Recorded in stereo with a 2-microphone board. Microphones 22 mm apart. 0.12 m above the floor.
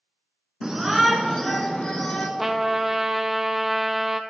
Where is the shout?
20° right (ahead or behind), 1.1 m; by 2.3 s 50° left (ahead or behind), 1.6 m.